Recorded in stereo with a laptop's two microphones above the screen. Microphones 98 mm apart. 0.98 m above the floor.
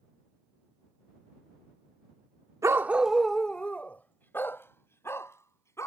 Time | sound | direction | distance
2.6 | a dog barking | 30° right (ahead or behind) | ?